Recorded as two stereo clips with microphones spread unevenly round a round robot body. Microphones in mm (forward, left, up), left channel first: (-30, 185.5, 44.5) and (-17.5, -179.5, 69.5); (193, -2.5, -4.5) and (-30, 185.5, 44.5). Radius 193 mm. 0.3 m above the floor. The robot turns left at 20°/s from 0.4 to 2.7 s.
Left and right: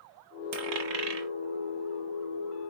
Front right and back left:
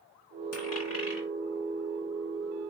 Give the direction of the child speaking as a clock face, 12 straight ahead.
I don't hear a child speaking.